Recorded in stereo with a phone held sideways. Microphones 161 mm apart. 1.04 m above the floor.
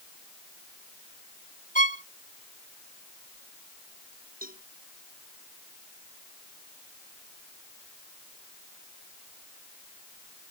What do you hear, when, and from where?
1.8 s a violin: 55° left (ahead or behind)
4.4 s a cowbell: 65° right (ahead or behind)